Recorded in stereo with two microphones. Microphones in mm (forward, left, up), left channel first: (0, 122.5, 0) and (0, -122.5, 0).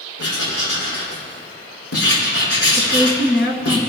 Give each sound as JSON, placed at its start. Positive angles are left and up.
{"t": 0.2, "sound": "writing", "side_deg": 75, "distance_m": 5.0}
{"t": 2.8, "sound": "a woman speaking", "side_deg": 45, "distance_m": 1.6}